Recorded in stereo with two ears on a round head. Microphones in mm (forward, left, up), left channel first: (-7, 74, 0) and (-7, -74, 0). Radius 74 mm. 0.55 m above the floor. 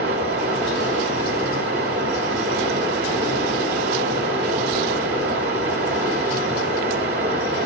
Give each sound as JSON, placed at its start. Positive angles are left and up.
{"t": 0.0, "sound": "running water", "side_deg": -65, "distance_m": 2.0}